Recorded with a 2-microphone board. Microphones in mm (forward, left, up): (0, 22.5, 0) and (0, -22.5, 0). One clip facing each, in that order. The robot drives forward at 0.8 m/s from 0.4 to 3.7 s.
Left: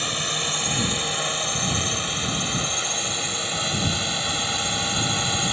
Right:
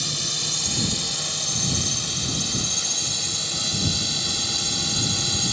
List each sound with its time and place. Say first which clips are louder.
0.0 s a drone: left 4 dB; 35° left (ahead or behind); by 5.5 s 30° left (ahead or behind)